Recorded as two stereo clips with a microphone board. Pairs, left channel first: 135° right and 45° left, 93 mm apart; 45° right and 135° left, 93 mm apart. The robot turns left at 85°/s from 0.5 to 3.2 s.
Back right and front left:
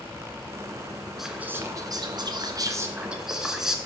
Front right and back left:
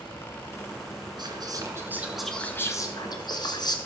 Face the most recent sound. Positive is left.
turn(degrees=-40)